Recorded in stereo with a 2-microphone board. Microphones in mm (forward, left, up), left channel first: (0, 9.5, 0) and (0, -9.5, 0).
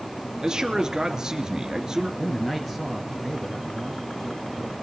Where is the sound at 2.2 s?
10° left (ahead or behind), 1.8 m.